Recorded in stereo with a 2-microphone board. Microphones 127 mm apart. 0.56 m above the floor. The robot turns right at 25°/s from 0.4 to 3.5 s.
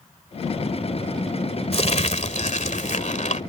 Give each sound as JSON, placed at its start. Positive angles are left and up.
{"t": 1.7, "sound": "crumpling", "azimuth_deg": 60}